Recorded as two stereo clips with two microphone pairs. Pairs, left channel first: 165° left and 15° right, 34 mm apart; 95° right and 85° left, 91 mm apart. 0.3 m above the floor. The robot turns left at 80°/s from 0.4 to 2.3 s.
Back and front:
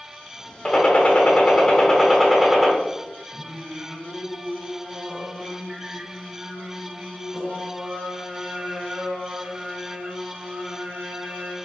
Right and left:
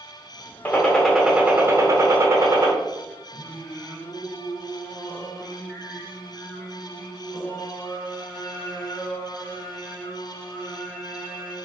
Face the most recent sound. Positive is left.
turn(degrees=-20)